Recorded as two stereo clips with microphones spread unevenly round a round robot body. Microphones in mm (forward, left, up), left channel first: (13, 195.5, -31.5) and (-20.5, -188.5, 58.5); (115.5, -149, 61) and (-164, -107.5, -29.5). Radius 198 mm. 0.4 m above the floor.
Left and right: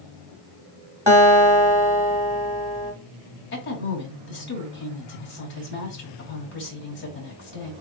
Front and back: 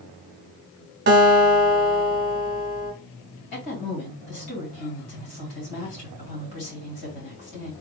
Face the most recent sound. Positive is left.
turn(degrees=30)